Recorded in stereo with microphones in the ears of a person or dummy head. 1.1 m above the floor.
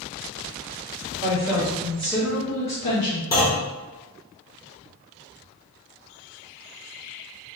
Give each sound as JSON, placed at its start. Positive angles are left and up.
{"t": 1.2, "sound": "a woman speaking", "side_deg": -25, "distance_m": 1.3}
{"t": 3.3, "sound": "a clunk", "side_deg": 20, "distance_m": 1.0}